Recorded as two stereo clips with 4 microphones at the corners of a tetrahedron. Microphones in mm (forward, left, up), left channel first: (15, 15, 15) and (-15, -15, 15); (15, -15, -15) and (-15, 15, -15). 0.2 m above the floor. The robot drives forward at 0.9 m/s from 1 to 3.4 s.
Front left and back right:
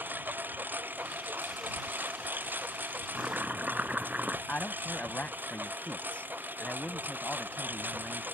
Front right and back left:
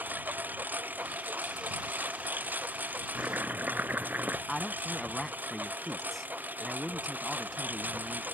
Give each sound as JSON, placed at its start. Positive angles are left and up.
{"t": 0.0, "sound": "a lawn mower", "azimuth_deg": 180}
{"t": 3.1, "sound": "chopping", "azimuth_deg": 170}
{"t": 4.5, "sound": "a man speaking", "azimuth_deg": 35}